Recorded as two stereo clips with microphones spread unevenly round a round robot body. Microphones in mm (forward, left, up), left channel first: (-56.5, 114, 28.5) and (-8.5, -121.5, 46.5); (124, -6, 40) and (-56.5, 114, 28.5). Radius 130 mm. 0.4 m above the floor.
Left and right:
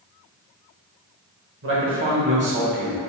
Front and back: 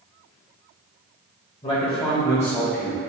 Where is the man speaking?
95° right, 1.5 m; by 3.0 s 125° right, 1.7 m.